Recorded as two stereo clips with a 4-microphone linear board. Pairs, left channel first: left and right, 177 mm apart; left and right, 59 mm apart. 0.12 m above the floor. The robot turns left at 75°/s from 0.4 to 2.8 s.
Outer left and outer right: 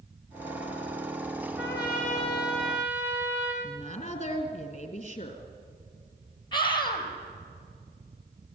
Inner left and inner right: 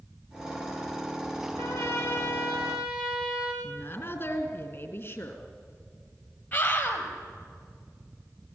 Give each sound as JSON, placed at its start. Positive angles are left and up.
{"t": 1.6, "sound": "a trumpet", "azimuth_deg": 80, "distance_m": 5.5}
{"t": 3.6, "sound": "a woman speaking", "side_deg": 35, "distance_m": 3.0}
{"t": 6.5, "sound": "a scream", "side_deg": 25, "distance_m": 3.5}